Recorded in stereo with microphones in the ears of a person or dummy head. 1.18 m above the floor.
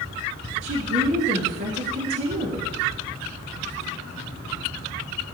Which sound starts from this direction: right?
A woman speaking, at 0.6 s.